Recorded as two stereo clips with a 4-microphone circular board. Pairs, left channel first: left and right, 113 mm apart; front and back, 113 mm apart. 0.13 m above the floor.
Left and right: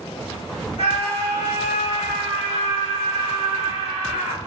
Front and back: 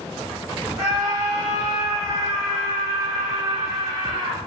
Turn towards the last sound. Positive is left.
turn(degrees=130)